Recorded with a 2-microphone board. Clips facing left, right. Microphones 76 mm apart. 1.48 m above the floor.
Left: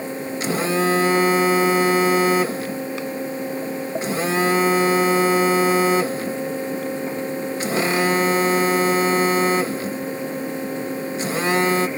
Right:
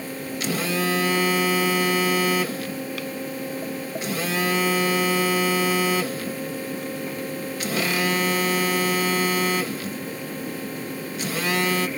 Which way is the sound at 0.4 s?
30° left (ahead or behind).